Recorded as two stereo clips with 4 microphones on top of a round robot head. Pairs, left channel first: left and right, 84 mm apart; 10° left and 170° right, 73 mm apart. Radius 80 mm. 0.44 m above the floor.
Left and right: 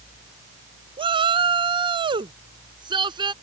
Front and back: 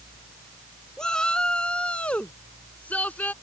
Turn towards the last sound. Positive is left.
turn(degrees=-60)